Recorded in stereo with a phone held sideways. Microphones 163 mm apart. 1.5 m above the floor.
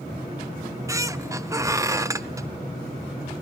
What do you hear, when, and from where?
0.6 s a squeak: 20° right (ahead or behind), 0.5 m